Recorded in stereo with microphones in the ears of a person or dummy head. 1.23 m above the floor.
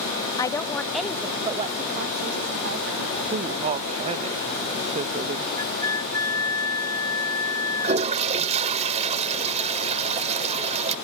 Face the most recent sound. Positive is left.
turn(degrees=-35)  # may be behind; listen again after turning